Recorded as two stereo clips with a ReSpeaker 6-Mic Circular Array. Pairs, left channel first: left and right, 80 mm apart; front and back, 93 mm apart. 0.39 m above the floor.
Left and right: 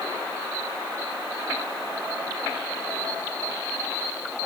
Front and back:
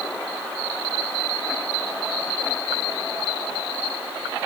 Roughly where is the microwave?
I don't hear a microwave.